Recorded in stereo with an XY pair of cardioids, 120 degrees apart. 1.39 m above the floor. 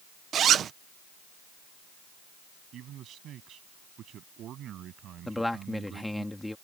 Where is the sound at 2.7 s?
60° right.